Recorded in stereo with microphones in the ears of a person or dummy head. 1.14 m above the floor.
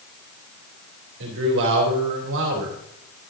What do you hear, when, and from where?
1.2 s a man speaking: 70° right (ahead or behind), 3.5 m